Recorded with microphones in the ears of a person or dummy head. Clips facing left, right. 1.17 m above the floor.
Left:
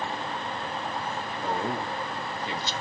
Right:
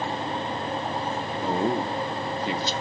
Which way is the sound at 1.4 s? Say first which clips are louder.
Right 5 dB; 65° right (ahead or behind).